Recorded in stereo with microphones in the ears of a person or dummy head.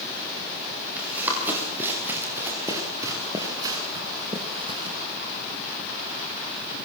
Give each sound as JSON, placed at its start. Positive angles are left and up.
{"t": 1.0, "sound": "running footsteps", "side_deg": -10, "distance_m": 7.5}